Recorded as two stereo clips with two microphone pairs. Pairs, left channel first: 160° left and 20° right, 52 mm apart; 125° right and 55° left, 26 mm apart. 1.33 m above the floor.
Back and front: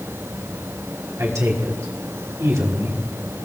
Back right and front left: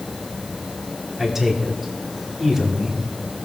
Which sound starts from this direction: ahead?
A man speaking, at 1.2 s.